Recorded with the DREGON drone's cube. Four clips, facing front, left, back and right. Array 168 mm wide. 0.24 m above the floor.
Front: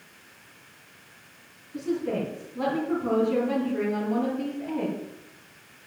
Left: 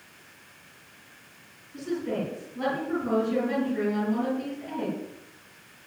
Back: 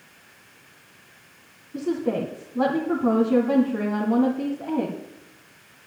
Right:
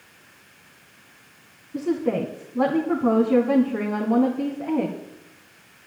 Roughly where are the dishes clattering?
I don't hear dishes clattering.